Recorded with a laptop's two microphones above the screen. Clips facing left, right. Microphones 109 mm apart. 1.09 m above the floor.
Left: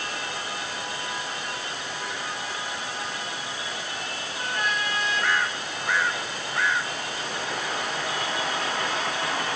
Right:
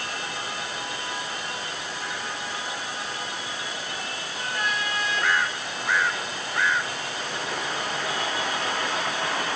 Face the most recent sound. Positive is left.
No sound to turn to.